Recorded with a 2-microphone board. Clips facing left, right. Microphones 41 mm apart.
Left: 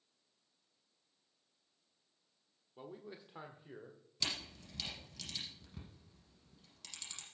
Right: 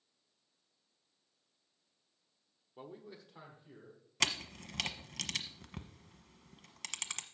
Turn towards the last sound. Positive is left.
turn(degrees=-80)